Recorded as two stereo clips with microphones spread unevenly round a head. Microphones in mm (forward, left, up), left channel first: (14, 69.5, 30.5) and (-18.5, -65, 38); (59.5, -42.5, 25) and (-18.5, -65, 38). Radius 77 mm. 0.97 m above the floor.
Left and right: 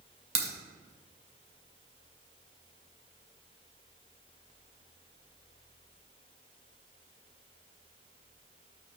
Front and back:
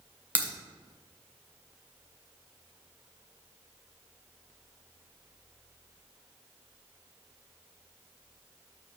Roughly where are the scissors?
I don't hear scissors.